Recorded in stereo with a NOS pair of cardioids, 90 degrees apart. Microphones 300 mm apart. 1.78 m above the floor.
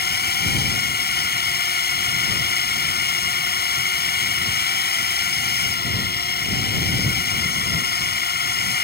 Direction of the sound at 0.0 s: 30° left.